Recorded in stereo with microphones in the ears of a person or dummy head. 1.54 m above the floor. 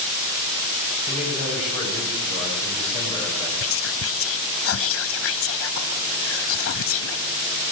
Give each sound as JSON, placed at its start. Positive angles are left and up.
{"t": 1.1, "sound": "a man speaking", "side_deg": 30, "distance_m": 8.5}
{"t": 3.6, "sound": "whispering", "side_deg": 65, "distance_m": 0.5}